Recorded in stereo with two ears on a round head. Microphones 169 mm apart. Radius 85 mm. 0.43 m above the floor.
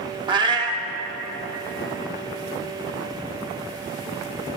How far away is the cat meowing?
About 0.5 m.